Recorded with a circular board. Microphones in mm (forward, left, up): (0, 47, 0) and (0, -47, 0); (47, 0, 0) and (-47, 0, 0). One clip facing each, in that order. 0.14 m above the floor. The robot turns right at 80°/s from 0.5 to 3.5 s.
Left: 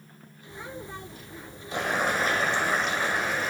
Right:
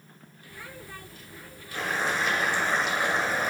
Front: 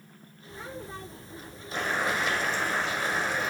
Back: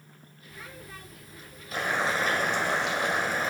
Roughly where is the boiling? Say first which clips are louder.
Left 2 dB, back 1 dB; left.